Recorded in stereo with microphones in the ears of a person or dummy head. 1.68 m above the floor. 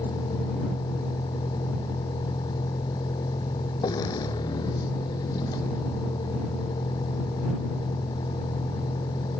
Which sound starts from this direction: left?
A vehicle, at 0.0 s.